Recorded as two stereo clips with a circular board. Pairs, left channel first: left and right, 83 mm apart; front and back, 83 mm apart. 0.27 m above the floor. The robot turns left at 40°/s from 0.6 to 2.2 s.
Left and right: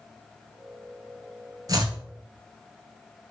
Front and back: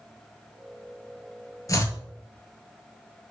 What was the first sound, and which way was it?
Chopping, 50° right.